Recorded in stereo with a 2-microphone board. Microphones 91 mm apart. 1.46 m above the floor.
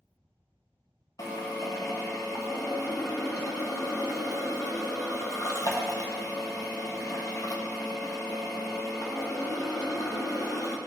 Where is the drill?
40° left (ahead or behind), 1.1 m.